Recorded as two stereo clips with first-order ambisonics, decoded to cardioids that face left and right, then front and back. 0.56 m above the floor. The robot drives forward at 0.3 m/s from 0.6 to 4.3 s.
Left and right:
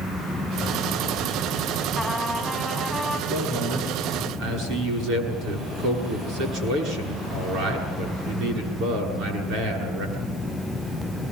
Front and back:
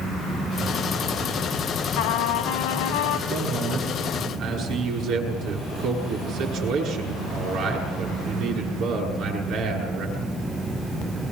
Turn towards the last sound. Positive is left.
turn(degrees=-130)